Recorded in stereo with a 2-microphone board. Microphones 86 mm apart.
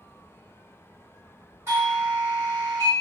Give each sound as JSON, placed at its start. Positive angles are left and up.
{"t": 1.7, "sound": "a doorbell", "side_deg": -30, "distance_m": 1.6}